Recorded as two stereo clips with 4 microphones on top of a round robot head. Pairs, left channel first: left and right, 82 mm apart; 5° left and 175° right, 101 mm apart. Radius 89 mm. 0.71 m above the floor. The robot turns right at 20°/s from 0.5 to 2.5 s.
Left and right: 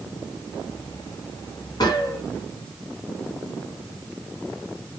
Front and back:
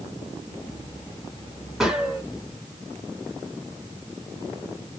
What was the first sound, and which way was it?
A gunshot, 100° left.